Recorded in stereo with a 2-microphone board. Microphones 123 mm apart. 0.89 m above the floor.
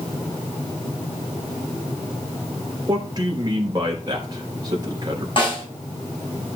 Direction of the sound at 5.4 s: 45° left (ahead or behind).